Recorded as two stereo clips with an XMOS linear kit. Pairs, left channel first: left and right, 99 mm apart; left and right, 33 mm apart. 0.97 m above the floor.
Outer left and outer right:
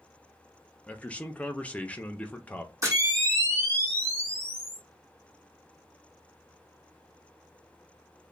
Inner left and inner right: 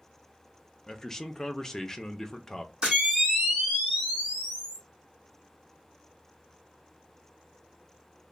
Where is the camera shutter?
35° right (ahead or behind), 1.2 m.